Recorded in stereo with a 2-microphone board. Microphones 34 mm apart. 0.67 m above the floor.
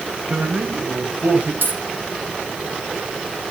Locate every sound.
0.3 s a man speaking: 35° right (ahead or behind), 4.5 m; by 1.5 s 50° right (ahead or behind), 4.5 m
1.6 s a dropped coin: 65° right (ahead or behind), 7.5 m